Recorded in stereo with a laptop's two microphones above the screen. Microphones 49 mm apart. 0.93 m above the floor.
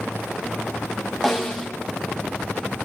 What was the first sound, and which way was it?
A snare drum, 5° left (ahead or behind).